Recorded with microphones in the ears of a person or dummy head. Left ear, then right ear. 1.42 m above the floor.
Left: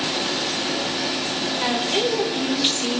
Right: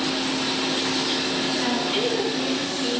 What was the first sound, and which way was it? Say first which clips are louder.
A woman speaking: left 2 dB; 20° left (ahead or behind).